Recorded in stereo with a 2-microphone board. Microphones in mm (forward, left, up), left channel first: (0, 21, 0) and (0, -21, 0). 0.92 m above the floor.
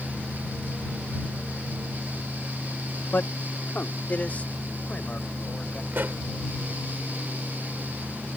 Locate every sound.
3.1 s a man speaking: 55° left (ahead or behind); by 5.8 s 30° left (ahead or behind)
5.9 s a pop: 55° right (ahead or behind)